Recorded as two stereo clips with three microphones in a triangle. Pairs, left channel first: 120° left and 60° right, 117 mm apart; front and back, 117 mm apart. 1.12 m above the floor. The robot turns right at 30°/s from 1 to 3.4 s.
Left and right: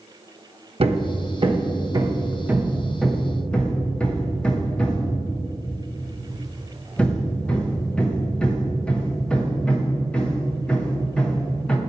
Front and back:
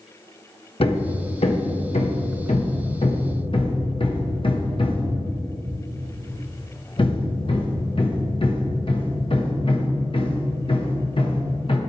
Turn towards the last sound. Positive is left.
turn(degrees=40)